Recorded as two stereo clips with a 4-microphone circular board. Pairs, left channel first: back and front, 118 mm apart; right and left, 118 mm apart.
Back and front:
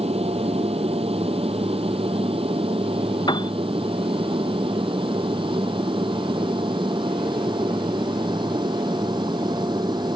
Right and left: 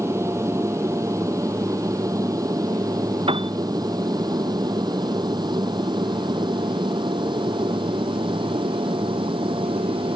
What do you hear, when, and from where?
0.0 s an aircraft: 25° left; by 10.2 s 50° left
3.3 s a piano: 130° left